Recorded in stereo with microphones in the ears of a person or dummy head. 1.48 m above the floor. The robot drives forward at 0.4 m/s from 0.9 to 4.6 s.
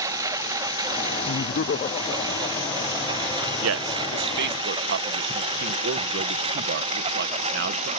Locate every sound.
0.0 s a lawn mower: 20° right (ahead or behind); by 8.0 s 35° right (ahead or behind)
1.3 s laughter: 60° left (ahead or behind); by 4.6 s 15° left (ahead or behind)
3.6 s a man speaking: 65° right (ahead or behind); by 7.9 s 50° right (ahead or behind)